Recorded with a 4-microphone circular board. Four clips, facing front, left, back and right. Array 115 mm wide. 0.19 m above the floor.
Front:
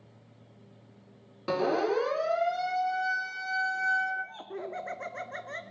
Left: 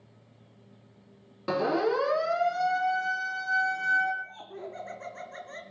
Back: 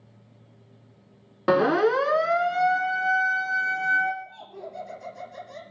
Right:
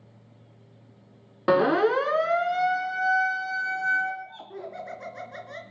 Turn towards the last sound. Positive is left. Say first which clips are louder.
# right 2 dB, front 1 dB
turn(degrees=-5)